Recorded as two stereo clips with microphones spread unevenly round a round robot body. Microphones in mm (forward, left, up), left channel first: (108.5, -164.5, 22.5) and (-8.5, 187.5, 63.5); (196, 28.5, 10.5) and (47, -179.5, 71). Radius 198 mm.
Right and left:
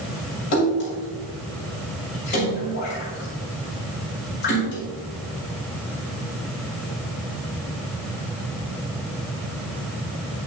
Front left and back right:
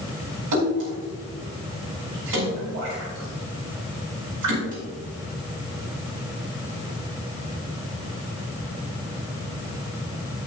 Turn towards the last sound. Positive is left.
turn(degrees=-135)